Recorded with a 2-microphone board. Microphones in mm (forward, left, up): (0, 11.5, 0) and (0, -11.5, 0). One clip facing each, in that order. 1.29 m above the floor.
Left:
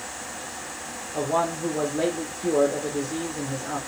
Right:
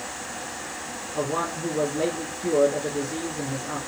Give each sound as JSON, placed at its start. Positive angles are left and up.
{"t": 1.1, "sound": "a man speaking", "side_deg": 40, "distance_m": 0.7}